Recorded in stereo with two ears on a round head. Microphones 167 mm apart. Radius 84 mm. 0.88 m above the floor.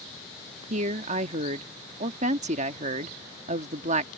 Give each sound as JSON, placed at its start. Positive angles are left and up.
{"t": 0.7, "sound": "a woman speaking", "side_deg": -40}